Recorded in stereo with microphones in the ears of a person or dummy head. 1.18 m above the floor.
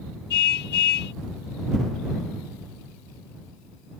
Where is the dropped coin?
I don't hear a dropped coin.